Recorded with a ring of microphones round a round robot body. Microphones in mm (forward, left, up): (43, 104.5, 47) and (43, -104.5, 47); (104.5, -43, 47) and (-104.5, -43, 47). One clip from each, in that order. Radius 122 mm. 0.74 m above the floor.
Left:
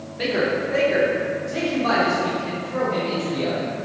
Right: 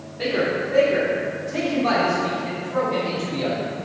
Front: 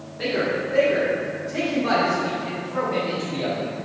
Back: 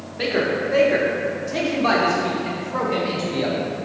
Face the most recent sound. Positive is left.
turn(degrees=-160)